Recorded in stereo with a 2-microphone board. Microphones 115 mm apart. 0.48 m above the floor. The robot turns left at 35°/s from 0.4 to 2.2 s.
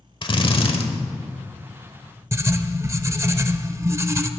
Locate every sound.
0.2 s a drill: 50° left (ahead or behind), 1.1 m; by 0.8 s 60° left (ahead or behind), 1.1 m
2.3 s writing: 25° right (ahead or behind), 0.6 m